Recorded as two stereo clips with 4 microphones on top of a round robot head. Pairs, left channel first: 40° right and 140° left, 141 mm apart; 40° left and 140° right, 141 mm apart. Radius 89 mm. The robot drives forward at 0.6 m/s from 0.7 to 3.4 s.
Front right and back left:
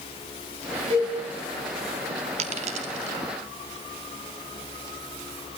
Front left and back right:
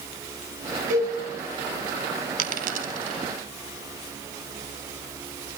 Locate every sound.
0.9 s a cowbell: 165° right, 8 m
2.4 s a dropped coin: 175° right, 1.3 m